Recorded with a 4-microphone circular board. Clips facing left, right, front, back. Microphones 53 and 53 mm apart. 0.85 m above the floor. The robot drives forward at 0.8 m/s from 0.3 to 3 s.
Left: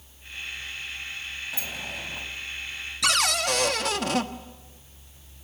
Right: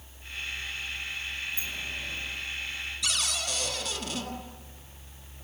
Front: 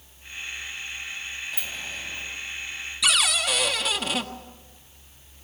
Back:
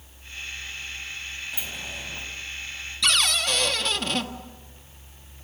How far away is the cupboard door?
About 1.5 m.